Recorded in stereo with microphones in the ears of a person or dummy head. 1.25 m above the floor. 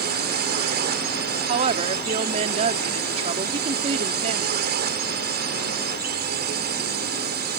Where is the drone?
45° right (ahead or behind).